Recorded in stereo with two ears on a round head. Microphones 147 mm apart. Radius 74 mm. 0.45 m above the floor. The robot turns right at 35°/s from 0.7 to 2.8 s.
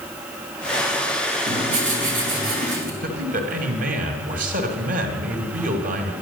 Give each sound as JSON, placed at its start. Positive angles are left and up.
{"t": 1.5, "sound": "writing", "azimuth_deg": -115, "distance_m": 4.0}
{"t": 3.0, "sound": "a man speaking", "side_deg": -55, "distance_m": 2.5}